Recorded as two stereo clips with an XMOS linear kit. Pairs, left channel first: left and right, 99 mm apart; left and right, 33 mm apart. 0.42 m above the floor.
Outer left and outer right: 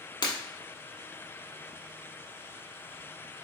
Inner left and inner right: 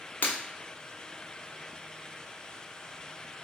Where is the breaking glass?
50° left (ahead or behind), 0.9 m.